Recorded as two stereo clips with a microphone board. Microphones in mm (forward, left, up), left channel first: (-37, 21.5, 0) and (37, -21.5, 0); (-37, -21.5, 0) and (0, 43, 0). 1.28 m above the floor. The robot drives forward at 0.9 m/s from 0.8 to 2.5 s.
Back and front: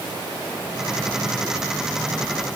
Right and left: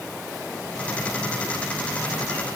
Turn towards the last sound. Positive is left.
No sound to turn to.